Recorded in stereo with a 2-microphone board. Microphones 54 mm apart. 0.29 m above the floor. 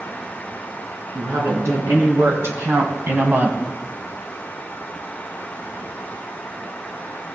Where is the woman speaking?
70° right (ahead or behind), 3 m; by 3.6 s 30° right (ahead or behind), 1.8 m.